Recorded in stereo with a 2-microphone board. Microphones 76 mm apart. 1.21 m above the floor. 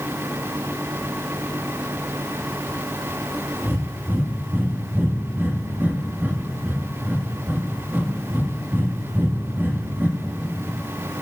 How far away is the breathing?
About 1.5 m.